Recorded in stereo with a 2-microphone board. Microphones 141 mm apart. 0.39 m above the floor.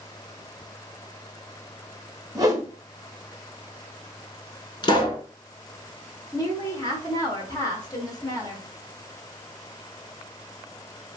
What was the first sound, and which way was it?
A whoosh, 25° right (ahead or behind).